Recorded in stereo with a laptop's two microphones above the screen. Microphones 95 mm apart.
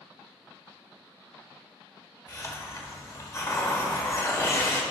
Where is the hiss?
30° left (ahead or behind), 1.4 m.